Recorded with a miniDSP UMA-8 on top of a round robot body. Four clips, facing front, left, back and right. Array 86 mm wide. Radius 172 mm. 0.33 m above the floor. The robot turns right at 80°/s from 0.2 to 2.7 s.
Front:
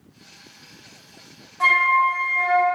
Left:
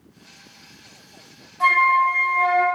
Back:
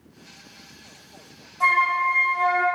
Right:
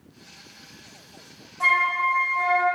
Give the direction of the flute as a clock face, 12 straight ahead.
12 o'clock.